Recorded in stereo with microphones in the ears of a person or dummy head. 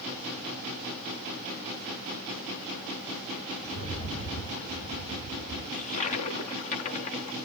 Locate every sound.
3.6 s a rattle: 45° left (ahead or behind), 4.5 m
5.7 s a toilet flushing: 40° left (ahead or behind), 0.9 m